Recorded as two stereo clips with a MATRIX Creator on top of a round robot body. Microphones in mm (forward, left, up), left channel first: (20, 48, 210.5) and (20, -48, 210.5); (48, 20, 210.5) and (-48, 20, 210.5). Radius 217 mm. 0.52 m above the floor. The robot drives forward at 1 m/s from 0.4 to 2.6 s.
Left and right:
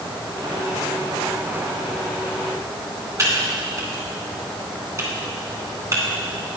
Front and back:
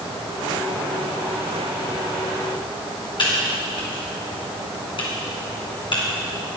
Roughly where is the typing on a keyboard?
Ahead right.